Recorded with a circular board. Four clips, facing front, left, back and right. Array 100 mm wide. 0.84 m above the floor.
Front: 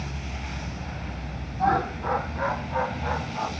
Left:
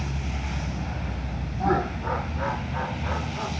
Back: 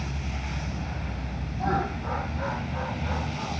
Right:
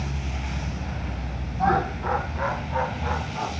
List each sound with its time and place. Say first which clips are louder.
1.6 s laughter: right 2 dB, front 4 dB; 70° right, 5 m; by 3.5 s 50° right, 6 m